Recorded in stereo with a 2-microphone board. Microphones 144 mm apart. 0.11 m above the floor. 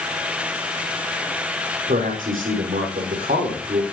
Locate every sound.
1.9 s a man speaking: 75° right (ahead or behind), 5.5 m